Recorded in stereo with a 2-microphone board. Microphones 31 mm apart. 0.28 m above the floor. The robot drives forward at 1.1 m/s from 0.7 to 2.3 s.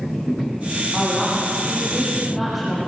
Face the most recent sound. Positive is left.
turn(degrees=-5)  # may be behind; listen again after turning